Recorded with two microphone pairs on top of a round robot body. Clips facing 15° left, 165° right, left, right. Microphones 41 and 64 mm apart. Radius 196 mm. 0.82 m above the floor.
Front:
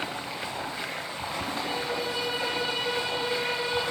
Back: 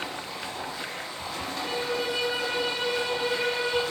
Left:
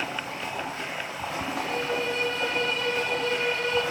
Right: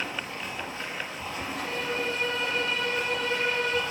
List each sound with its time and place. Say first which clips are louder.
0.0 s running water: front 1 dB, left 2 dB; 90° left, 0.8 m
1.6 s a violin: back 4 dB, left 2 dB; 130° right, 2.5 m